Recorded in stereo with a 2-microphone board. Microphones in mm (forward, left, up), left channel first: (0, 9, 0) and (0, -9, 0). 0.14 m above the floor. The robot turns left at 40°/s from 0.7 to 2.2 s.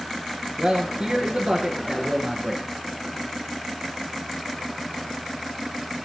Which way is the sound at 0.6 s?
75° right.